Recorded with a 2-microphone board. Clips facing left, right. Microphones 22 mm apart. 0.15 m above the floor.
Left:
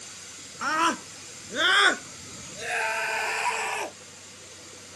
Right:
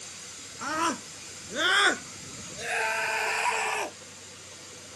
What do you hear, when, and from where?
0.6 s a scream: 35° left (ahead or behind); by 4.0 s centre (ahead or behind)